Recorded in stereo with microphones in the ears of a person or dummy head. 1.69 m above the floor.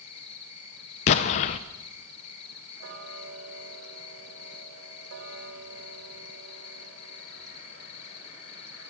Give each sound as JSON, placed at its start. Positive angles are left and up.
{"t": 0.0, "sound": "an insect", "side_deg": 35, "distance_m": 1.4}
{"t": 1.1, "sound": "an explosion", "side_deg": 40, "distance_m": 0.8}
{"t": 2.8, "sound": "ticking", "side_deg": -65, "distance_m": 4.0}